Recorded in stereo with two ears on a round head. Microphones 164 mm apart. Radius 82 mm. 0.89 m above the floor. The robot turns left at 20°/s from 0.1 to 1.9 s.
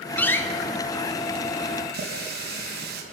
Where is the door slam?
10° left (ahead or behind), 1.5 m; by 0.4 s 15° left (ahead or behind), 1.5 m.